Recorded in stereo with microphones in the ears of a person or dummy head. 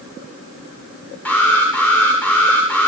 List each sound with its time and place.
1.2 s an alarm: centre (ahead or behind), 8.5 m